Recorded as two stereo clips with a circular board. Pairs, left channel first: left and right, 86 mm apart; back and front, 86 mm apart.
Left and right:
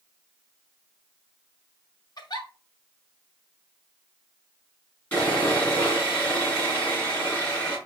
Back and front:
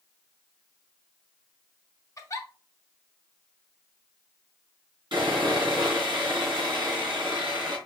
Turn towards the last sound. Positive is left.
turn(degrees=25)